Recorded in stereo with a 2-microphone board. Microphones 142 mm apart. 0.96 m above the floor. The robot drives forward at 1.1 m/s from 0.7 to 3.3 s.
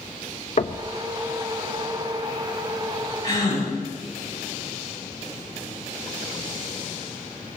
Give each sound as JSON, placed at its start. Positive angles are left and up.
{"t": 0.6, "sound": "knocking", "side_deg": 55, "distance_m": 0.7}
{"t": 3.2, "sound": "a gasp", "side_deg": 30, "distance_m": 8.0}